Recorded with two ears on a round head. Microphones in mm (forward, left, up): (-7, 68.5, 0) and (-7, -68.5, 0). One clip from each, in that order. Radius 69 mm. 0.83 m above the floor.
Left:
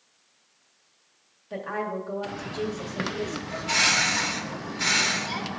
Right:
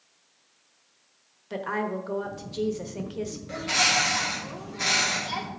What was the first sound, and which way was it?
A woman speaking, 45° right (ahead or behind).